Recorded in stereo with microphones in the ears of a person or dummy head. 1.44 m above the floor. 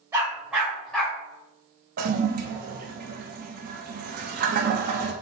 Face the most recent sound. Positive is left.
turn(degrees=-50)  # may be behind; listen again after turning